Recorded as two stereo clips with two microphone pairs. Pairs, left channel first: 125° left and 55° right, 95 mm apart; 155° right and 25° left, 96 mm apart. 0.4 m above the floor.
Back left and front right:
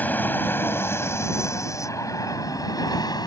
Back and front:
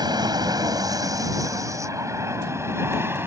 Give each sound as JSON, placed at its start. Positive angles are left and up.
{"t": 0.0, "sound": "an aircraft", "azimuth_deg": 55}